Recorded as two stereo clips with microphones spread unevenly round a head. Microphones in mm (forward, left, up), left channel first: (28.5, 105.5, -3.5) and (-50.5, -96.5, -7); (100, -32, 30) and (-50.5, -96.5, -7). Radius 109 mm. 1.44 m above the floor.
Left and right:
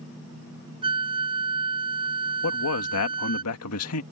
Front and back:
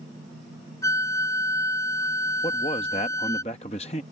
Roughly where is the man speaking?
Left.